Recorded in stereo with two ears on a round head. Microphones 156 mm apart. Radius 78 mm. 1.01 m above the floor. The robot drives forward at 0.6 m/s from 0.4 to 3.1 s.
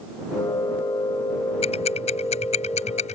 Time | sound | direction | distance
1.6 | ticking | 35° left (ahead or behind) | ?